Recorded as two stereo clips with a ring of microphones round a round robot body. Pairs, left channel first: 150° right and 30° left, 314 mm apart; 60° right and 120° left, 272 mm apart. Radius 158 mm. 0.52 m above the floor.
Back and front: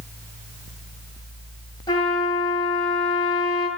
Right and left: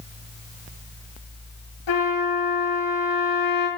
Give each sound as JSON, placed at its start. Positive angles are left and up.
{"t": 1.9, "sound": "a trumpet", "azimuth_deg": -75, "distance_m": 8.0}